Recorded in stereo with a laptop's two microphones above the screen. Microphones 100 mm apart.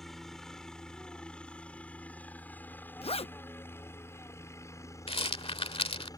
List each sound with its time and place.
0.0 s a helicopter: 5° left (ahead or behind); by 6.2 s 40° left (ahead or behind)
3.0 s a zipper: 80° left
5.1 s a rattle: 80° left